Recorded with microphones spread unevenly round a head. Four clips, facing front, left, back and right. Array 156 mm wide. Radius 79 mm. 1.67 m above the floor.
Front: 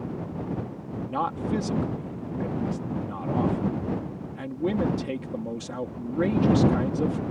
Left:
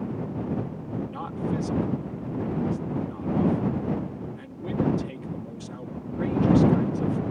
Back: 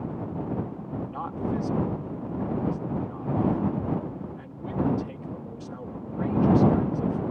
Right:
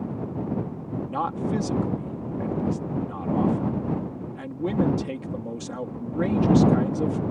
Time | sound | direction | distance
1.1 | a man speaking | 35° right | ?